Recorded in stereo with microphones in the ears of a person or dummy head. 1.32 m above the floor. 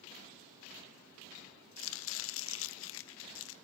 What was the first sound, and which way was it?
Chopping, 65° left (ahead or behind).